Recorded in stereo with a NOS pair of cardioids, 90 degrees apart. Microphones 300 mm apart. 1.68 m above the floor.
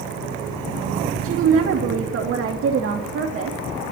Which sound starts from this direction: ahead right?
A woman speaking, at 1.2 s.